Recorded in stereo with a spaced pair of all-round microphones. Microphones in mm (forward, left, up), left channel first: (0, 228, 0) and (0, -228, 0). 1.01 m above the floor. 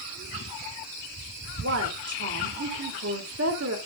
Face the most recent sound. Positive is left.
turn(degrees=-30)  # may be behind; listen again after turning